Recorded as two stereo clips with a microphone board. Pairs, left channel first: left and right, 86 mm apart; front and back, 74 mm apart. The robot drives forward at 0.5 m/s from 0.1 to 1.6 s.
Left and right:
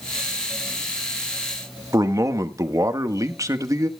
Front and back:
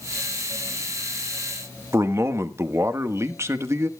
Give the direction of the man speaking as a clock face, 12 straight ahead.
4 o'clock.